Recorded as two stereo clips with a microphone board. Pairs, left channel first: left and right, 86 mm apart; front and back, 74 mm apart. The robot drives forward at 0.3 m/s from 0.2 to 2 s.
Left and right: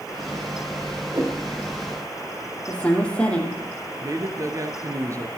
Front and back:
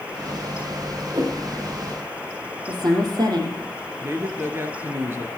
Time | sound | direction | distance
1.1 | a whoosh | 145° right | 4.5 m
2.7 | a woman speaking | 165° left | 4.5 m
4.0 | a man speaking | 130° right | 2 m